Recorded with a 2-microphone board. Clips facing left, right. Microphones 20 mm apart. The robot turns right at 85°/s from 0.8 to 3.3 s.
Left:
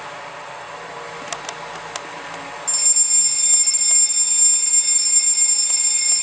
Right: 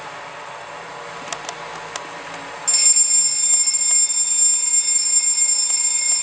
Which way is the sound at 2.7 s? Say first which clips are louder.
Right 4 dB; 45° right.